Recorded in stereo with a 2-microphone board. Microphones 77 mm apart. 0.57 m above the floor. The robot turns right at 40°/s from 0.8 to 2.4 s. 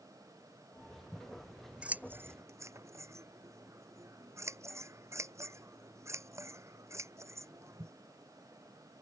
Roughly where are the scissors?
Centre.